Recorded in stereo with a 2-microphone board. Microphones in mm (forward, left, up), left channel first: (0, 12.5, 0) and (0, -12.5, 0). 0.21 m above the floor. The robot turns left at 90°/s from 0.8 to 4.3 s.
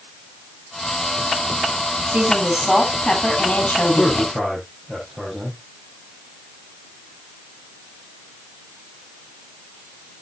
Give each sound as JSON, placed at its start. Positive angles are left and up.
{"t": 2.1, "sound": "a woman speaking", "azimuth_deg": -125, "distance_m": 6.0}
{"t": 4.0, "sound": "a man speaking", "azimuth_deg": 30, "distance_m": 6.0}